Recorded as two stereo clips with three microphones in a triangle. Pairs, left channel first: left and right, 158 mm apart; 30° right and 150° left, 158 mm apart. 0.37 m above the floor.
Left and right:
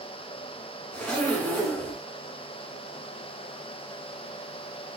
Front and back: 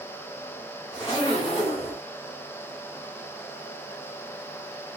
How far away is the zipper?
About 1.2 m.